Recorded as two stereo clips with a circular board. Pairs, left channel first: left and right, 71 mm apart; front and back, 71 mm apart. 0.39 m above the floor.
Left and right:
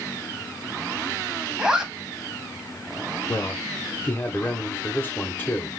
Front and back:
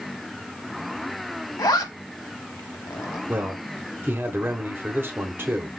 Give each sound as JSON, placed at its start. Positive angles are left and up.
{"t": 1.6, "sound": "a zipper", "azimuth_deg": -10, "distance_m": 0.9}
{"t": 3.3, "sound": "a man speaking", "azimuth_deg": 140, "distance_m": 1.1}